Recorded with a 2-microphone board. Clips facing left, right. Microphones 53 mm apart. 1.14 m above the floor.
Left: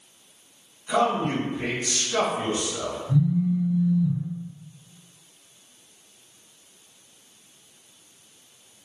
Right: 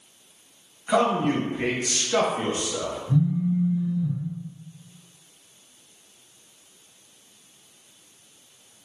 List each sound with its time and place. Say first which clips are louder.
0.9 s a man speaking: right 1 dB; 40° right (ahead or behind), 1.1 m
3.1 s a phone buzzing: left 1 dB; 25° right (ahead or behind), 1.0 m